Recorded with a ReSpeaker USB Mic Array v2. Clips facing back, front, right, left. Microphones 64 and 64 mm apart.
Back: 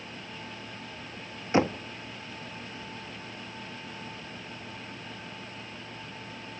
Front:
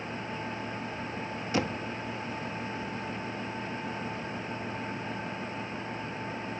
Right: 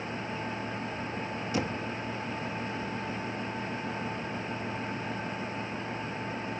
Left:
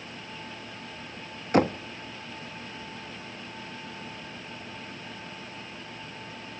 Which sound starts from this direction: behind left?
Knocking, at 1.5 s.